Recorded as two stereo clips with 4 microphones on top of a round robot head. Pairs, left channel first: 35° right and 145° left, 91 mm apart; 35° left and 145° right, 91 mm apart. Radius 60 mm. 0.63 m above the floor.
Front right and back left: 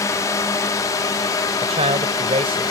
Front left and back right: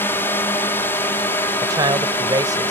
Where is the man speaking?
165° left.